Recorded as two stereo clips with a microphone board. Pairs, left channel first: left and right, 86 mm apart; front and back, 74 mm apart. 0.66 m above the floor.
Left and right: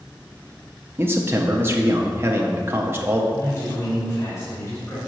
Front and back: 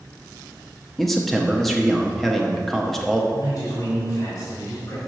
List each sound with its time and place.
1.0 s a man speaking: 85° right, 0.7 m
3.3 s a man speaking: 35° left, 2 m